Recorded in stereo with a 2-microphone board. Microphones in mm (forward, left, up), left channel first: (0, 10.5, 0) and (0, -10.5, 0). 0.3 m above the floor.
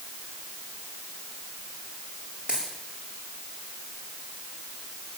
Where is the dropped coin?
70° right (ahead or behind), 9.5 m.